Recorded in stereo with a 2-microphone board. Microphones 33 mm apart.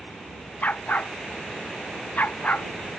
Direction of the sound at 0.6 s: 55° left (ahead or behind).